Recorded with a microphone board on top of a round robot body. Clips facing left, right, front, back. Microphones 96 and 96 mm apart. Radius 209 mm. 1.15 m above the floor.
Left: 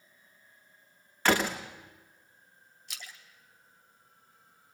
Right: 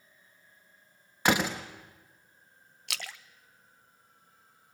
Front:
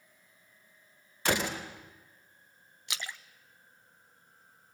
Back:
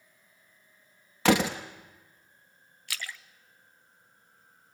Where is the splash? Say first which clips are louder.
Right 7 dB, back 1 dB; 70° right, 0.7 m.